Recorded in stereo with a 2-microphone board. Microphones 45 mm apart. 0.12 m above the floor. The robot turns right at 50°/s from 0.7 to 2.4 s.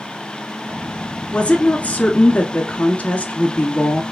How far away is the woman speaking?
About 1.2 m.